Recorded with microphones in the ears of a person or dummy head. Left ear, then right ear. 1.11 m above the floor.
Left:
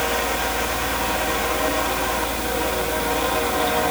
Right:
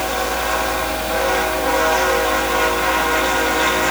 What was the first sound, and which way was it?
A fan, 30° right (ahead or behind).